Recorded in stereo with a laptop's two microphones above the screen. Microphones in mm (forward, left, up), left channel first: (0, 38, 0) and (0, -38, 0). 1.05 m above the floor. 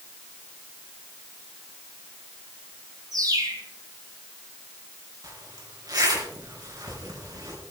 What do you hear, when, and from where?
3.1 s a bird: 55° right (ahead or behind), 4.5 m
5.2 s a zipper: 55° right (ahead or behind), 3.5 m